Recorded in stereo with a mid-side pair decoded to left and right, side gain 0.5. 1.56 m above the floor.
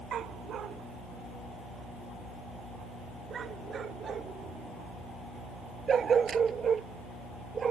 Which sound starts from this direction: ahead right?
A dog barking, at 0.1 s.